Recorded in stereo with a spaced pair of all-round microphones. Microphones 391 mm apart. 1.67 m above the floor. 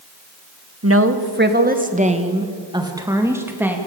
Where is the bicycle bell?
I don't hear a bicycle bell.